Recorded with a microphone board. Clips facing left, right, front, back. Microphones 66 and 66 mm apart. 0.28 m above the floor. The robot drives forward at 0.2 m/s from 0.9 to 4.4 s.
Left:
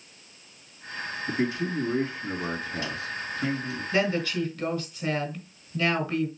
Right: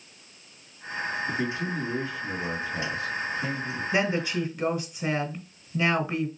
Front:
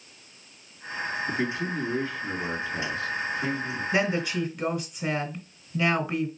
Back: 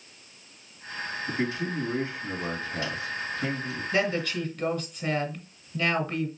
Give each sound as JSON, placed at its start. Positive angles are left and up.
{"t": 1.3, "sound": "a man speaking", "azimuth_deg": 105, "distance_m": 2.5}
{"t": 3.9, "sound": "a woman speaking", "azimuth_deg": -50, "distance_m": 1.1}